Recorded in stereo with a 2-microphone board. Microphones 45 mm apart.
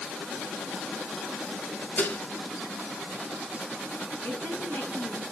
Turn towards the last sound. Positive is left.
turn(degrees=55)  # may be behind; listen again after turning